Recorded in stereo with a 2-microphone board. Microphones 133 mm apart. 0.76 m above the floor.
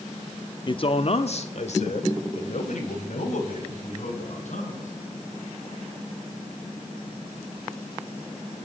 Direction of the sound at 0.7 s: 35° left (ahead or behind).